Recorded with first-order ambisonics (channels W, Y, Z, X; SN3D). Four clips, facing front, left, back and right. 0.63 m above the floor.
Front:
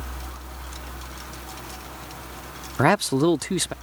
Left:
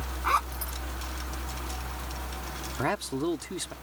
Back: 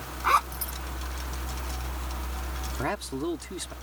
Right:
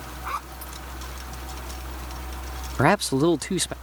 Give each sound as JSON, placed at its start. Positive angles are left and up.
{"t": 0.2, "sound": "a zipper", "azimuth_deg": 160}
{"t": 2.8, "sound": "a man speaking", "azimuth_deg": -40}